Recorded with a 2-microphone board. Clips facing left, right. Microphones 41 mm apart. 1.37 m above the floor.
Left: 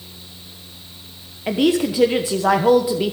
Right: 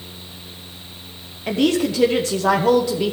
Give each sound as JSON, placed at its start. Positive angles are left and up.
{"t": 1.5, "sound": "a woman speaking", "side_deg": 15, "distance_m": 1.0}